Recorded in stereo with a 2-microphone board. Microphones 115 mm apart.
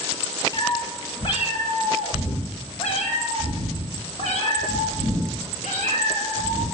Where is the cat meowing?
40° left (ahead or behind), 2 m; by 6.7 s 85° left, 4 m.